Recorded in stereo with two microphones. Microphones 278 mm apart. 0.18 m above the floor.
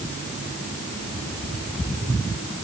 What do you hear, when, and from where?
Only background noise.